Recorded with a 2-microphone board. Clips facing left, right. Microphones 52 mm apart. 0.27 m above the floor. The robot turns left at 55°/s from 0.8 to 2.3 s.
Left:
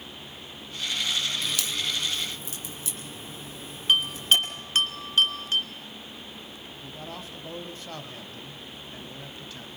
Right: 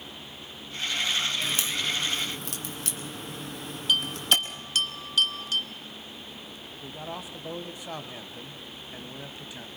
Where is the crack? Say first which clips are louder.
Right 1 dB; 20° right (ahead or behind), 2.5 m; by 4.3 s 60° right (ahead or behind), 2.5 m.